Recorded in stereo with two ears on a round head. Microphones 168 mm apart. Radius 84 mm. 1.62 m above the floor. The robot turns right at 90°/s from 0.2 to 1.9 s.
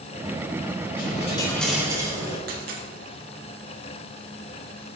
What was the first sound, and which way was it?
A dropped coin, 115° left.